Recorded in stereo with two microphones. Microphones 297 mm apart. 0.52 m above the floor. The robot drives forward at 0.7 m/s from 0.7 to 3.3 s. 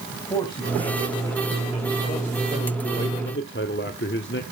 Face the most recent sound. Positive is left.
turn(degrees=40)  # may be behind; listen again after turning